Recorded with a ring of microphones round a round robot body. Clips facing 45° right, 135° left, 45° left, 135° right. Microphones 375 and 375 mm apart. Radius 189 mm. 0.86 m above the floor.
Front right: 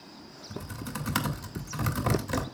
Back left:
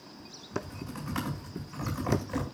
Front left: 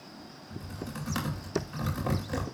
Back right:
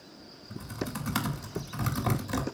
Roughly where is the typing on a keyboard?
Right.